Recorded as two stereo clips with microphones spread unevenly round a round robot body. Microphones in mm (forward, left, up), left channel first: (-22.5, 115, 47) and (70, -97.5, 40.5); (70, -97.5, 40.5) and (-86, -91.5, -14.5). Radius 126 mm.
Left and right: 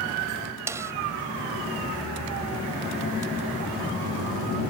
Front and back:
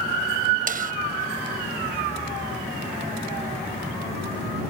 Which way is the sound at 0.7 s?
145° right.